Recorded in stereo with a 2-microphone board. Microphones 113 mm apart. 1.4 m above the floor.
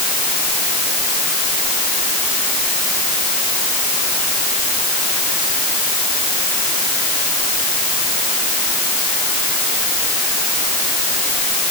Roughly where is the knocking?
I don't hear knocking.